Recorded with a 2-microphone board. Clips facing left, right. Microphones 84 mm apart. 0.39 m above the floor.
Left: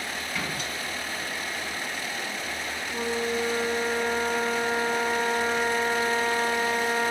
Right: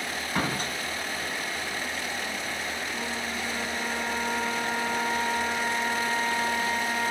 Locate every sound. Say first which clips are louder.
0.3 s a door slam: right 6 dB; 40° right (ahead or behind), 2 m
2.9 s a flute: left 5 dB; 40° left (ahead or behind), 4 m